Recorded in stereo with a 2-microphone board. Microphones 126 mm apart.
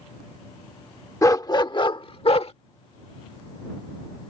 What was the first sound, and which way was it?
A dog barking, 25° left (ahead or behind).